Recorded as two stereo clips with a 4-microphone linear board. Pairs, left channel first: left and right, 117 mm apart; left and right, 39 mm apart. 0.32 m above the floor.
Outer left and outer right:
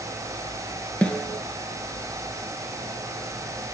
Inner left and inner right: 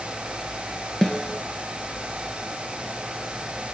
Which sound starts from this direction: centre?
A snare drum, at 1.0 s.